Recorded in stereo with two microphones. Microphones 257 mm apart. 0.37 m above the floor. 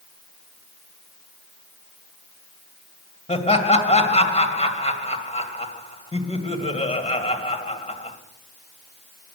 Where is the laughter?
25° left (ahead or behind), 2 m.